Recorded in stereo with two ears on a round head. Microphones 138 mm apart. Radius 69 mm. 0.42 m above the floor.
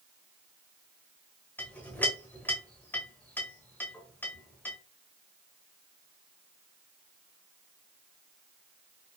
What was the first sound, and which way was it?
A clink, 15° left (ahead or behind).